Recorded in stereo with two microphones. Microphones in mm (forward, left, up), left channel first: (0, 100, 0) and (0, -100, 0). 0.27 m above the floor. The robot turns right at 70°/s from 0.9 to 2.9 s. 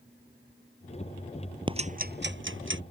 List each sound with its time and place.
1.7 s ticking: 25° right (ahead or behind); by 2.8 s 75° right (ahead or behind)